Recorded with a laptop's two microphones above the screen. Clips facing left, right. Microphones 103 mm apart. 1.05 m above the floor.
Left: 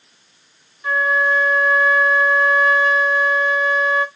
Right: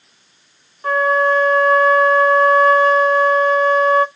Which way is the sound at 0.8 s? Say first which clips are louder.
Right 4 dB; 45° right (ahead or behind).